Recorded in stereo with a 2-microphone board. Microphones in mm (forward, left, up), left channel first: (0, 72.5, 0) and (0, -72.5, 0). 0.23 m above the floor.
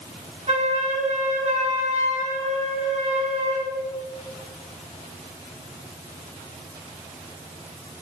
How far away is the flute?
About 6 m.